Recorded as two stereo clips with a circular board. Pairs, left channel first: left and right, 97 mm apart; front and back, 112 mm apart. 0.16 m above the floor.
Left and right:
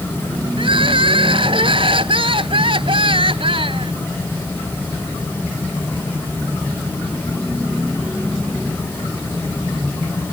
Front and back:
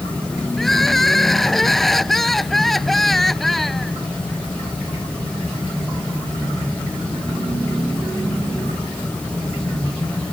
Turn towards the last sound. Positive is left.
turn(degrees=-90)